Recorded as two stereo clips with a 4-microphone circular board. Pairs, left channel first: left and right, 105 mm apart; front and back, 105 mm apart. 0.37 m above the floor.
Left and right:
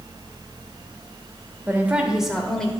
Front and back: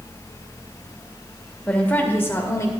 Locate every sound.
1.7 s a woman speaking: 60° right, 1.2 m; by 2.7 s 20° left, 1.3 m